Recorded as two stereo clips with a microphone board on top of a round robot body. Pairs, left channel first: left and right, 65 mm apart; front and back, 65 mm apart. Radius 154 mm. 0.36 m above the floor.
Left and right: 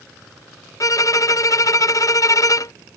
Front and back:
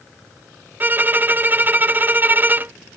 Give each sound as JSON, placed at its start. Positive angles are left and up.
{"t": 0.8, "sound": "a violin", "azimuth_deg": 120}